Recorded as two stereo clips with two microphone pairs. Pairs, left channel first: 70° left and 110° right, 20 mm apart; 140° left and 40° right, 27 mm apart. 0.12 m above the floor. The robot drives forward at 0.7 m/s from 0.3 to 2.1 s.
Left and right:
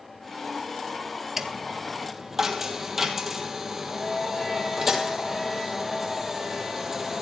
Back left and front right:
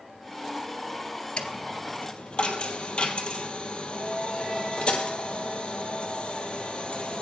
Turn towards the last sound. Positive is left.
turn(degrees=180)